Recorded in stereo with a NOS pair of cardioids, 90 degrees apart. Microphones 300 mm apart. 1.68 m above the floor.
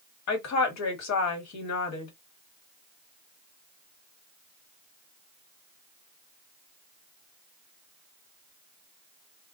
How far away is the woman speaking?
About 1.3 m.